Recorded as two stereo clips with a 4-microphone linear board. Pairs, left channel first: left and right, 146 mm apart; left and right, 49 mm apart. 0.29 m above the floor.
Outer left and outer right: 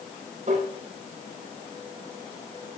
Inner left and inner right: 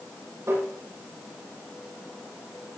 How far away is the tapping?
About 7 m.